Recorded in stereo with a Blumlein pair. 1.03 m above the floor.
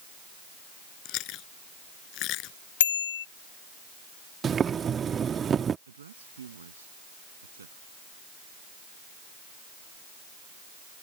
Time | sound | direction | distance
1.1 | chewing | 40° left | ?
2.8 | a bicycle bell | 60° left | ?
4.4 | boiling | 20° right | ?
5.9 | a woman speaking | 70° right | ?